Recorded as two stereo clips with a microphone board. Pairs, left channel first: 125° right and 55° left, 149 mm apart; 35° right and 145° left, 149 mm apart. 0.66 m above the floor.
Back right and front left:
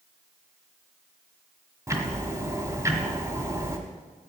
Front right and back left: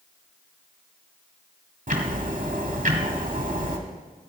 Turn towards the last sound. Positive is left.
turn(degrees=125)